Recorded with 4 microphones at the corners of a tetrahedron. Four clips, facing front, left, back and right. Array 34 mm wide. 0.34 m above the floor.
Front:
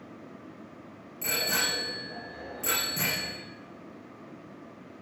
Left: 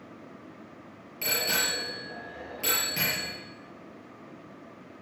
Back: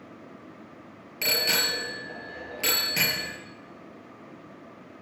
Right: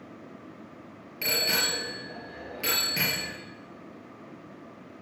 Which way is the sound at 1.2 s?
160° right.